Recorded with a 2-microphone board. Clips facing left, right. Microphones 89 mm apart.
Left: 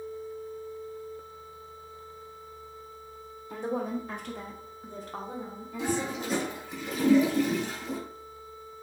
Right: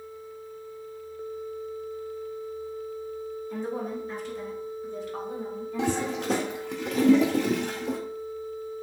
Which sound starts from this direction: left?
A woman speaking, at 3.5 s.